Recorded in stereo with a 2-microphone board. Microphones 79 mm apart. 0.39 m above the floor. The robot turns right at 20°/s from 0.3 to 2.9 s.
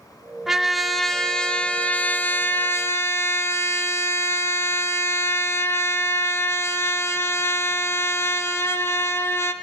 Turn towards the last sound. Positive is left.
turn(degrees=45)